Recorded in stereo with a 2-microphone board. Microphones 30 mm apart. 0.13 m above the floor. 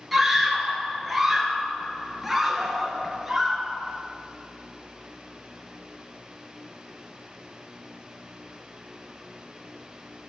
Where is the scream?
Centre (ahead or behind), 2 m.